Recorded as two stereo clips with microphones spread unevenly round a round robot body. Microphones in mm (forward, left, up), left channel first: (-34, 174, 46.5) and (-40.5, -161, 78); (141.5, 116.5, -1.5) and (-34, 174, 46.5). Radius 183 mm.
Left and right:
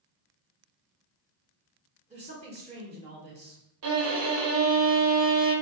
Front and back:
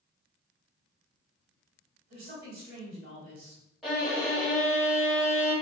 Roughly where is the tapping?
No tapping in this recording.